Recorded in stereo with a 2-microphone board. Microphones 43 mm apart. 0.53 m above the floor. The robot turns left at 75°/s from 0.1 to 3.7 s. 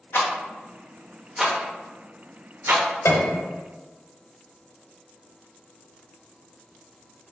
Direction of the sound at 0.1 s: 70° left (ahead or behind).